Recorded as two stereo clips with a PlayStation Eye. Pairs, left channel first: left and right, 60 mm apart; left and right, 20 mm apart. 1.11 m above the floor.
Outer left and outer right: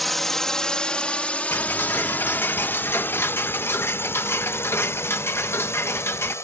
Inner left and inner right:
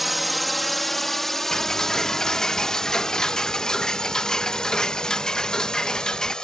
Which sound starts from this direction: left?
Ticking, at 1.5 s.